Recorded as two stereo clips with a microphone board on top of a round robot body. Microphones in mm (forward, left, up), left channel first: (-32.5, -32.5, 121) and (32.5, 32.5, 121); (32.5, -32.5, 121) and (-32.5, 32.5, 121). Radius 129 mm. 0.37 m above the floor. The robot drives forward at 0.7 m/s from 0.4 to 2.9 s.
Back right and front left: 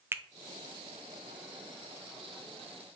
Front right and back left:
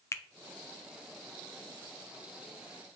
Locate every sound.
0.1 s a finger snap: 5° right, 0.7 m